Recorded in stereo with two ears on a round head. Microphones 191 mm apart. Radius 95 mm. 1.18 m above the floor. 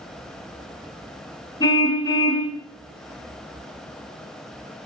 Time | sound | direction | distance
1.6 | a car horn | 20° left (ahead or behind) | 5 m